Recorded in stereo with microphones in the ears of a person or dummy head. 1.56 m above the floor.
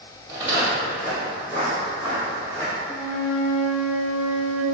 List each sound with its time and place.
0.3 s footsteps: 25° left (ahead or behind), 2.0 m; by 2.7 s 15° left (ahead or behind), 3 m
2.9 s a flute: 5° left (ahead or behind), 0.7 m